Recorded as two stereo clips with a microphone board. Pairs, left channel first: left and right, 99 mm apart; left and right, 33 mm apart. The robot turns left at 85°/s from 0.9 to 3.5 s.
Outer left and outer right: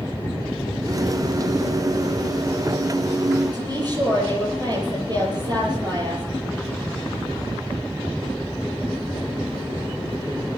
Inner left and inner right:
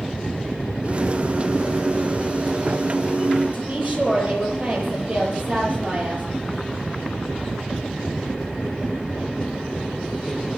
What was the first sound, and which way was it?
A woman speaking, 40° right (ahead or behind).